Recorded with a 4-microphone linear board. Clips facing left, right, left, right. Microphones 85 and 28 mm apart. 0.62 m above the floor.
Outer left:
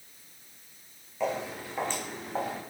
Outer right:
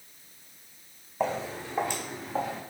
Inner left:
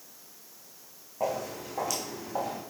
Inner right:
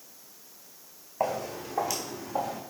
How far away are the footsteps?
About 1.9 m.